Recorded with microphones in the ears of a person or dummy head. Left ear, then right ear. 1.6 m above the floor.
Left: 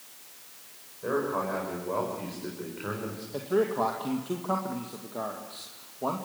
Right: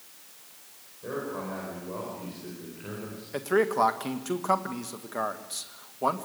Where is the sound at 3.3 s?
65° right (ahead or behind), 1.8 m.